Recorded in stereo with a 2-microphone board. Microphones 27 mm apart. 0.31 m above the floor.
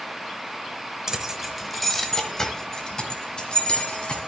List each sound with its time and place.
1.1 s keys jangling: 20° right (ahead or behind), 0.8 m; by 4.2 s 40° left (ahead or behind), 1.9 m